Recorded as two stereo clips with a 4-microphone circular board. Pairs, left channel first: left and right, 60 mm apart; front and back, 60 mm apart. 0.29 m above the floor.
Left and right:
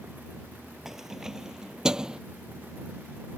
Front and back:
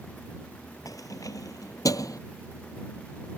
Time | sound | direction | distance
0.8 | keys jangling | 10° right | ?